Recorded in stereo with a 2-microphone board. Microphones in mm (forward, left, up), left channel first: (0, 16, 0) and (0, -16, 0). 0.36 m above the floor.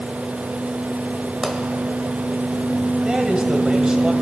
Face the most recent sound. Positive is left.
turn(degrees=-30)  # may be behind; listen again after turning